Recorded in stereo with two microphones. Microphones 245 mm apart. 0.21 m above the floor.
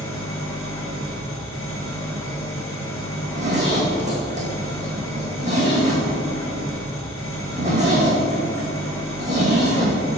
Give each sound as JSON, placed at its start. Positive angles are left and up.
{"t": 0.0, "sound": "an engine running", "side_deg": 60, "distance_m": 1.8}
{"t": 3.2, "sound": "a zipper", "side_deg": -30, "distance_m": 2.0}